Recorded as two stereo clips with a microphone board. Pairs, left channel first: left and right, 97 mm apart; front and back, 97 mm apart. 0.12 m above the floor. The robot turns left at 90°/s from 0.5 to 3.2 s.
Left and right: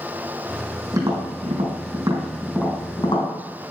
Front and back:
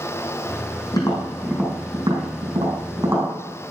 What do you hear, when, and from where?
0.9 s tapping: 40° right, 4.5 m; by 3.3 s 115° left, 4.5 m